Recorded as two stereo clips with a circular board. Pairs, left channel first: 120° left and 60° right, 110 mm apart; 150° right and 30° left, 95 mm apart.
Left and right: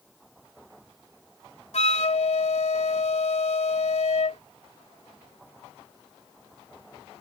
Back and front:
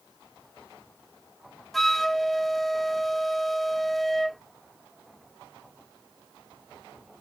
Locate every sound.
1.7 s a flute: 120° left